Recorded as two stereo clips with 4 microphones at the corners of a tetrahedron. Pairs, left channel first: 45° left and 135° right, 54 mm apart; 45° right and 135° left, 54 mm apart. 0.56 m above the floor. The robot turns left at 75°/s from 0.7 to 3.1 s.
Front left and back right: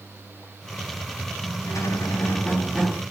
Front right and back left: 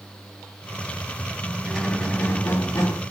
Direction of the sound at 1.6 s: 60° left.